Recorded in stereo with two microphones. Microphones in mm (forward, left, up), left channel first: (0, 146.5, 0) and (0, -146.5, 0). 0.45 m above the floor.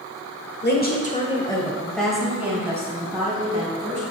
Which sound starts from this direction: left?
A woman speaking, at 0.6 s.